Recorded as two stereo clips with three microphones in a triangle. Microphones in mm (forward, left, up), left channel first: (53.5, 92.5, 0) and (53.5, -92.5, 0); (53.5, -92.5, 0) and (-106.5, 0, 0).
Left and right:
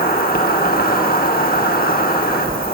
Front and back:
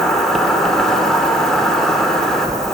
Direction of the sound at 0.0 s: 55° left.